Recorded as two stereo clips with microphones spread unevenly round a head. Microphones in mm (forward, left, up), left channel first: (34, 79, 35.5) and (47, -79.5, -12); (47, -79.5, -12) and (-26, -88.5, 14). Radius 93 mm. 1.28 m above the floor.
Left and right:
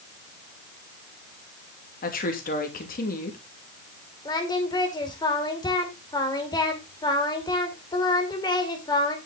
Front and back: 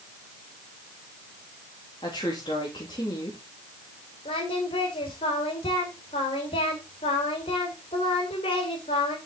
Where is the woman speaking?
60° left, 2.5 m.